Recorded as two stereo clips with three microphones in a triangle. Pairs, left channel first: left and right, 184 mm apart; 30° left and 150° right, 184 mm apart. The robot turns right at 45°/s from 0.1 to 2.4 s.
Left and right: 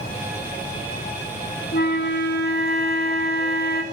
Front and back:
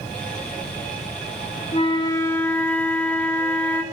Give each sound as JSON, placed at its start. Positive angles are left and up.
{"t": 1.7, "sound": "a flute", "azimuth_deg": 80, "distance_m": 2.0}